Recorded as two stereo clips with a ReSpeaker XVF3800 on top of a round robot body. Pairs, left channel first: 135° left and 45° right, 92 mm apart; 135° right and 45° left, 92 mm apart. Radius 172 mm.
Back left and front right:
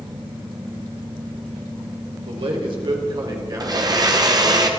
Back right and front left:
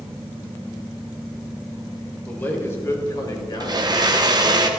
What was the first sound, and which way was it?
A man speaking, 65° right.